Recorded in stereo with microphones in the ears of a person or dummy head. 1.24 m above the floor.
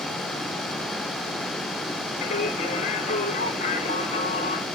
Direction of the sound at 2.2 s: 35° left (ahead or behind).